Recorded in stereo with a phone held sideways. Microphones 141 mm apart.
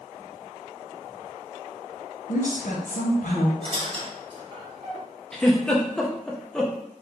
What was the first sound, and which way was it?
A woman speaking, 65° left (ahead or behind).